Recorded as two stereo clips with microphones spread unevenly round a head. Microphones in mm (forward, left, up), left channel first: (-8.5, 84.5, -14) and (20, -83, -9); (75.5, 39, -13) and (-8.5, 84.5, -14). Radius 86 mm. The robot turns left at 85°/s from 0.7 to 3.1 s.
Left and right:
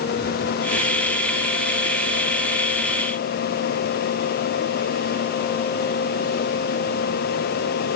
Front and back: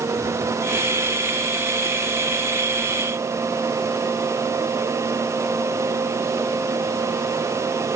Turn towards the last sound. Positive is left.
No sound to turn to.